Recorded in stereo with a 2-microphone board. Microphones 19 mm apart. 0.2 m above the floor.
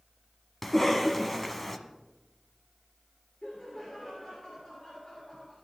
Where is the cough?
15° left (ahead or behind), 1.5 m.